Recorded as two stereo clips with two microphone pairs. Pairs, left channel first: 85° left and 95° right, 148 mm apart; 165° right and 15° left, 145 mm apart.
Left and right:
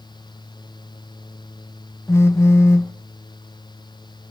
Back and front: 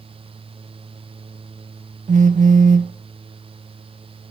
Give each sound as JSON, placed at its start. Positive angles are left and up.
{"t": 2.1, "sound": "a phone buzzing", "azimuth_deg": 20, "distance_m": 0.6}